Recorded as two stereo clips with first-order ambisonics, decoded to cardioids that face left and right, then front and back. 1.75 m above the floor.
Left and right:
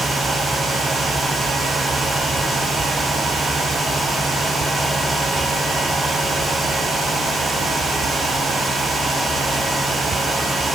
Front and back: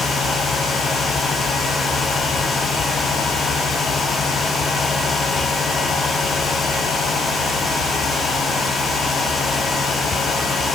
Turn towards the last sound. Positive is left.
No sound to turn to.